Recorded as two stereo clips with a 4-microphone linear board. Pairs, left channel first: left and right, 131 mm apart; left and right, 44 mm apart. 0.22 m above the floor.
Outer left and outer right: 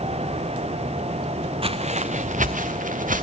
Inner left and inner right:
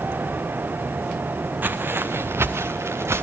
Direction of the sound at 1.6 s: 45° right (ahead or behind).